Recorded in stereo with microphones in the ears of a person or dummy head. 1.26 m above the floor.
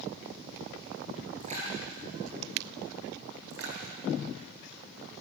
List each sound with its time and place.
1.4 s a splash: 35° right (ahead or behind), 9.5 m
3.5 s a splash: 60° right (ahead or behind), 6.5 m